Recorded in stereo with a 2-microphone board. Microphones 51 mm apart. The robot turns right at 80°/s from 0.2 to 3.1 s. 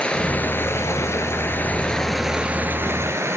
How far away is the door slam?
No door slam in this recording.